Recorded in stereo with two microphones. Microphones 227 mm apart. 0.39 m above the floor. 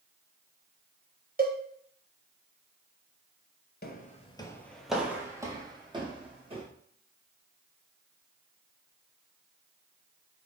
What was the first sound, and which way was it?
A cowbell, 40° right (ahead or behind).